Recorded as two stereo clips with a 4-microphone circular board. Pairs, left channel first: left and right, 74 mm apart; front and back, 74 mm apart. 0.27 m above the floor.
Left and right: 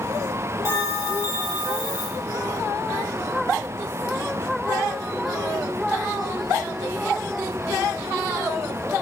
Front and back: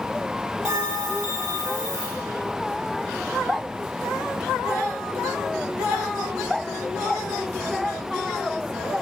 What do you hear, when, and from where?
0.7 s a bell: 140° left, 3 m